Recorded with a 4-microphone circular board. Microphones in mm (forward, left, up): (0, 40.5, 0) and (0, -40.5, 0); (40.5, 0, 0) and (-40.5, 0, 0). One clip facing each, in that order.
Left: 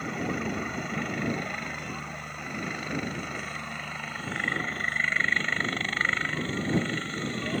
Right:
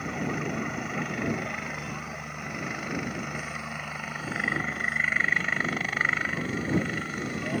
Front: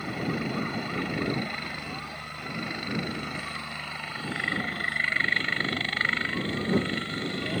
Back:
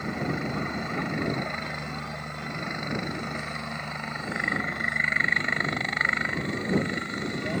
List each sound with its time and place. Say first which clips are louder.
0.0 s a helicopter: even, back 1 dB; 170° right; by 7.6 s 155° right